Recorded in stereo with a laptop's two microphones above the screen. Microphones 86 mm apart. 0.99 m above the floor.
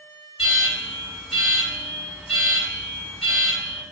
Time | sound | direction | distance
0.4 | an alarm | centre (ahead or behind) | 1.4 m